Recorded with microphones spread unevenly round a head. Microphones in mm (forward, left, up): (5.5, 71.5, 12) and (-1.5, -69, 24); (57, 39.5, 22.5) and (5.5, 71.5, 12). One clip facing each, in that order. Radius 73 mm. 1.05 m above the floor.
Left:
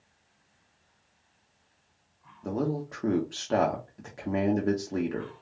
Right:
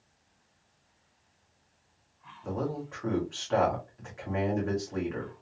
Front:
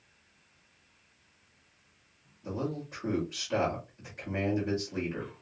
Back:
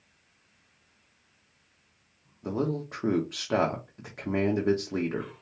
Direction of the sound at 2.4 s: 130° left.